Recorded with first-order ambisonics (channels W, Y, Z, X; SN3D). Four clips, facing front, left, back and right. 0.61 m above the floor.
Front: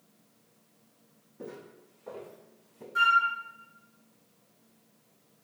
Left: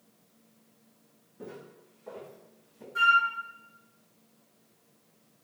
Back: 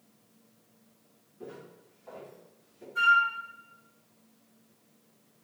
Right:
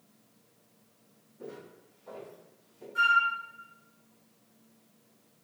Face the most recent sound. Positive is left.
turn(degrees=15)